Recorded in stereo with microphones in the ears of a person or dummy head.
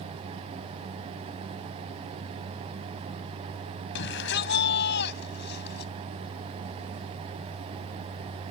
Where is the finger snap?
I don't hear a finger snap.